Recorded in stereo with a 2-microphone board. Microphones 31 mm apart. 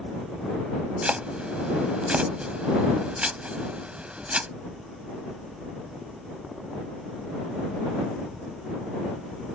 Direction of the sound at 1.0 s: 40° right (ahead or behind).